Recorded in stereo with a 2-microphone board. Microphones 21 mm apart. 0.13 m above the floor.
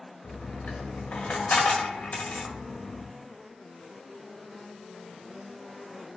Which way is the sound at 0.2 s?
80° left.